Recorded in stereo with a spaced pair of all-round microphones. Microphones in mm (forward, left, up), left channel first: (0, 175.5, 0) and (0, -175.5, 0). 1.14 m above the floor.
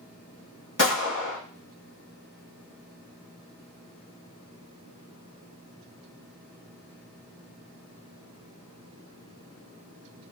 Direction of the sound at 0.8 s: 60° left (ahead or behind).